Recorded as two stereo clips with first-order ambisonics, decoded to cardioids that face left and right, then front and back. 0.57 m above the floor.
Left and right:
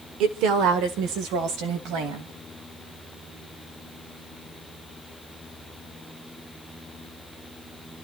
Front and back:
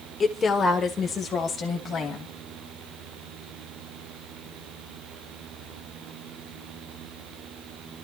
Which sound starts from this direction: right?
A woman speaking, at 0.2 s.